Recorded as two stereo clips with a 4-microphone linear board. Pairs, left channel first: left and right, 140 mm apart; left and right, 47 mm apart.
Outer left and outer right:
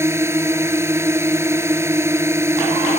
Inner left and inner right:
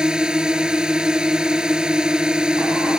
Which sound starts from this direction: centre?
A drone, at 0.0 s.